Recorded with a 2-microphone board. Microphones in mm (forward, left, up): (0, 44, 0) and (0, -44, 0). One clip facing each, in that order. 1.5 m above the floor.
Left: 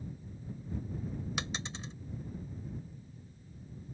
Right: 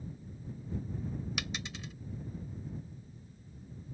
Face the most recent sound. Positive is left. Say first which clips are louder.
# left 1 dB
turn(degrees=30)  # may be behind; listen again after turning